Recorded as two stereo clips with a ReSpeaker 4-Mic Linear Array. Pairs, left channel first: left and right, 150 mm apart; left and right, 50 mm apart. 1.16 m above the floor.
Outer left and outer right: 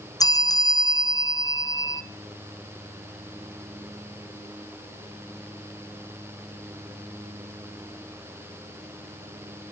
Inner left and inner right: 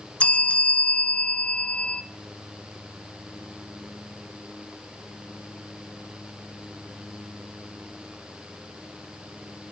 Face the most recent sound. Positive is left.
turn(degrees=25)  # may be behind; listen again after turning